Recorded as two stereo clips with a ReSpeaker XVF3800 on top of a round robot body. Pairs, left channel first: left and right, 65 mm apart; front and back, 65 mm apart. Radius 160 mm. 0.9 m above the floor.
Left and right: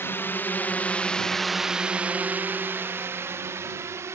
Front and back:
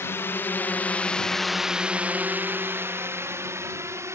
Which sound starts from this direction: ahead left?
A drone, at 0.0 s.